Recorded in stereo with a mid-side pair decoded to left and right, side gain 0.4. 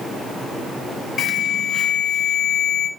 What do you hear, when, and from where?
1.2 s an alarm: 60° left, 2.5 m